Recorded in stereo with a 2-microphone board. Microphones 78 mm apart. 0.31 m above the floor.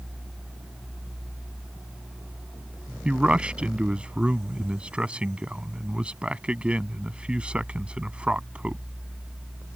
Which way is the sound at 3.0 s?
15° right (ahead or behind).